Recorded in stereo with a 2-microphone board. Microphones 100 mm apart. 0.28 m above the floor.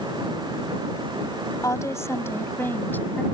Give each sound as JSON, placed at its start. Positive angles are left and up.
{"t": 1.6, "sound": "a woman speaking", "side_deg": 35}